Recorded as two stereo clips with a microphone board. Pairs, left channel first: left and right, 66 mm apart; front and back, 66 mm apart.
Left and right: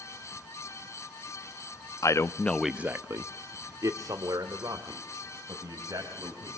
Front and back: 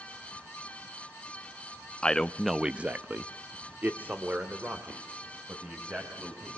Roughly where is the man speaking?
Left.